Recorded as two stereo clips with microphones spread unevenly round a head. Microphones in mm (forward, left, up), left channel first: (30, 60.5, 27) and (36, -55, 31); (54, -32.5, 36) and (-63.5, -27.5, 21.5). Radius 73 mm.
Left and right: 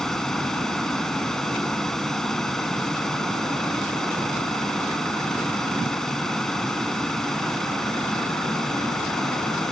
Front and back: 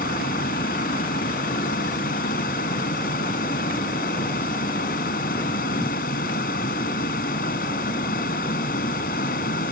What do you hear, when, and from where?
0.0 s a fan: 5° left